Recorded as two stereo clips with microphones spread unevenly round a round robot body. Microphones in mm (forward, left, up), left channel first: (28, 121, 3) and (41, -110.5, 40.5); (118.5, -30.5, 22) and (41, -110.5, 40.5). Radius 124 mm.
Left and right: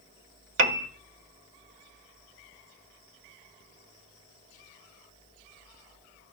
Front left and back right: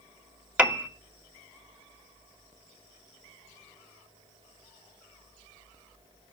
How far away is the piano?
About 2 m.